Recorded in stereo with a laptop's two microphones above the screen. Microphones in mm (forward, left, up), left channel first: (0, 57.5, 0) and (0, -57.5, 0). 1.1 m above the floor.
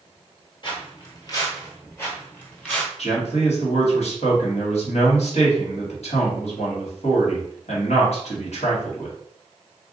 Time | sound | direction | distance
0.6 | footsteps | 45° left (ahead or behind) | 1.8 m
3.0 | a man speaking | 70° left (ahead or behind) | 1.6 m